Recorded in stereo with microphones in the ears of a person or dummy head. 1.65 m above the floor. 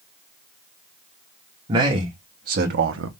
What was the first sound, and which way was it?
A man speaking, 25° right (ahead or behind).